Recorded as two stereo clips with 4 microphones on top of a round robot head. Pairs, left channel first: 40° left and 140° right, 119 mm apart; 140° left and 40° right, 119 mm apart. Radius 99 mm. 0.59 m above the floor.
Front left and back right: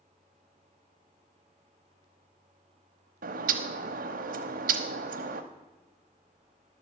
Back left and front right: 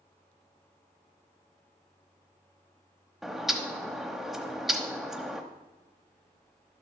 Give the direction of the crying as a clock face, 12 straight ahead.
I don't hear crying.